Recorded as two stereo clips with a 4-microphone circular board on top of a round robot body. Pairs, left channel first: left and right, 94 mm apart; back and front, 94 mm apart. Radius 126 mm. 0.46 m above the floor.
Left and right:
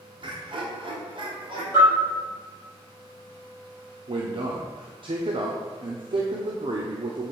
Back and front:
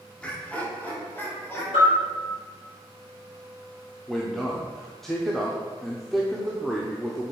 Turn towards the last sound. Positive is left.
turn(degrees=-95)